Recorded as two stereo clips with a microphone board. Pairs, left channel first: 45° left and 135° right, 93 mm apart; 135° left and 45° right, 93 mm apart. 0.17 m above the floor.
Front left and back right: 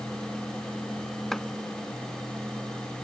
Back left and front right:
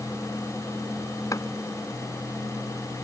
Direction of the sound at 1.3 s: 130° left.